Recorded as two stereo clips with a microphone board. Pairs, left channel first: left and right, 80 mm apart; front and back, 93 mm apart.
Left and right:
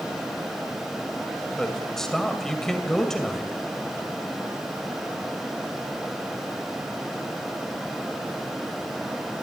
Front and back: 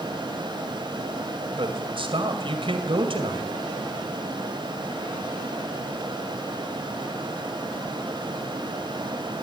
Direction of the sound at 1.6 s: 175° left.